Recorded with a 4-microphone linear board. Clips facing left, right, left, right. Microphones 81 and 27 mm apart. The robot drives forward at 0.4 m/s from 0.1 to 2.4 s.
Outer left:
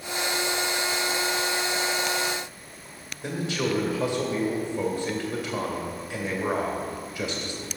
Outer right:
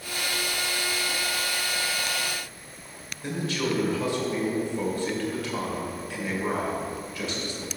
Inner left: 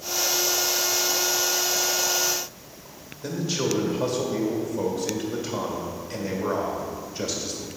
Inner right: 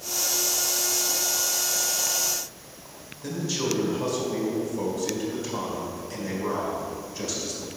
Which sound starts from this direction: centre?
A man speaking, at 3.2 s.